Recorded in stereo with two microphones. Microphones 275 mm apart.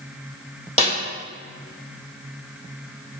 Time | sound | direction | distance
0.8 | a snare drum | 20° left (ahead or behind) | 1.2 m